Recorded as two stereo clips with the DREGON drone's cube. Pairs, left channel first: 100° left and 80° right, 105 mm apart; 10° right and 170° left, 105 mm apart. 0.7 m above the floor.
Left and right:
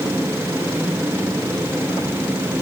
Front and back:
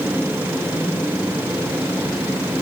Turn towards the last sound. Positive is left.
No sound to turn to.